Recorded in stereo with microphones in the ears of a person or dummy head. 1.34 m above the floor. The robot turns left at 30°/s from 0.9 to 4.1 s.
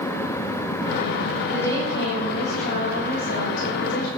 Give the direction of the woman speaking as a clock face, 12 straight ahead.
6 o'clock.